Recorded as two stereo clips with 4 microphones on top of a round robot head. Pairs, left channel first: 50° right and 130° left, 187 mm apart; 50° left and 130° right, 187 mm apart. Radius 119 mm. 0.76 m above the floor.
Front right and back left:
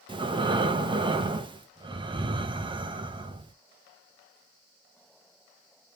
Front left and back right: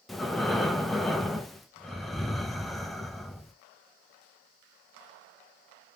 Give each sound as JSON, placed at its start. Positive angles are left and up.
{"t": 0.1, "sound": "breathing", "azimuth_deg": 140, "distance_m": 0.7}